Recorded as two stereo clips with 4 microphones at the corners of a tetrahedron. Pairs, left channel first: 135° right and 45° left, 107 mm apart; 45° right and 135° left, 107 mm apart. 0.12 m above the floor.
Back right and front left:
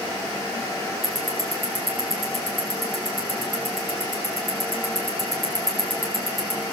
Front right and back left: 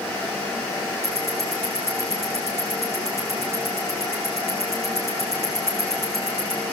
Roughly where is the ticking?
Behind left.